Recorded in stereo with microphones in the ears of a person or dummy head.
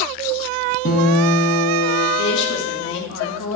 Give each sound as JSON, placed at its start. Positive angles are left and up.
{"t": 0.8, "sound": "a guitar", "side_deg": 50, "distance_m": 2.5}
{"t": 2.2, "sound": "a woman speaking", "side_deg": 70, "distance_m": 2.0}